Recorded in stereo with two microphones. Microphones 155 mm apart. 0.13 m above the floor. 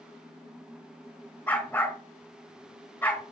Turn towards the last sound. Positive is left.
turn(degrees=10)  # may be behind; listen again after turning